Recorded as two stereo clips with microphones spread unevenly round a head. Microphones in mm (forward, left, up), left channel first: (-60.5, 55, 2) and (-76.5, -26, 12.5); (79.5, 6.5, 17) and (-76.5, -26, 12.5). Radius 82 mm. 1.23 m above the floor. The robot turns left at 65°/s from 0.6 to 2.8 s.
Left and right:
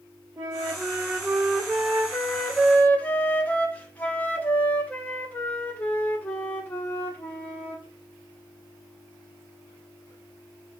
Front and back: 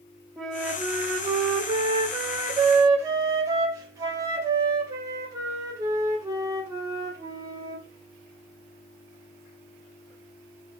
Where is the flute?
75° right, 0.7 m; by 7.8 s 145° left, 0.7 m.